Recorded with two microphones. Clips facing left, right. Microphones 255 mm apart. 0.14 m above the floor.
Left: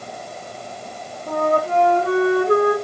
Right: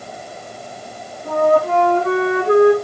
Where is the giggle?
No giggle in this recording.